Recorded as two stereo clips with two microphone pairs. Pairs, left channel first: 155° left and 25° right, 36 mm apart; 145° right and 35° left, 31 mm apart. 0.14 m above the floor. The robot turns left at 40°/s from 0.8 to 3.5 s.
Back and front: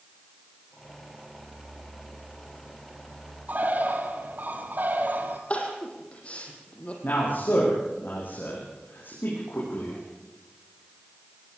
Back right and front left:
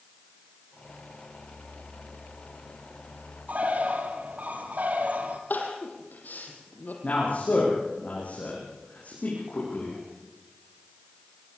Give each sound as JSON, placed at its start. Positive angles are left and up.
{"t": 3.5, "sound": "a bird", "azimuth_deg": 5, "distance_m": 2.5}
{"t": 5.5, "sound": "crying", "azimuth_deg": -155, "distance_m": 4.5}
{"t": 7.0, "sound": "a man speaking", "azimuth_deg": 175, "distance_m": 8.5}